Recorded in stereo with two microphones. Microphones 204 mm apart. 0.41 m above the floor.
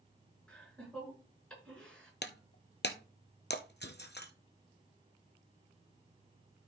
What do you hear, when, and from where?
0.5 s laughter: 5° left (ahead or behind), 5.5 m
2.2 s breaking glass: 55° left (ahead or behind), 0.9 m